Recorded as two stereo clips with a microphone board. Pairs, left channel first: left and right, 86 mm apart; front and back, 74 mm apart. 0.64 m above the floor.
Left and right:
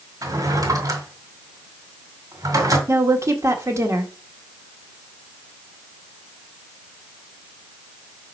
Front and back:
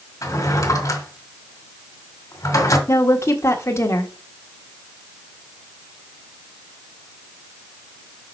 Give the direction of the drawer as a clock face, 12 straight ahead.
1 o'clock.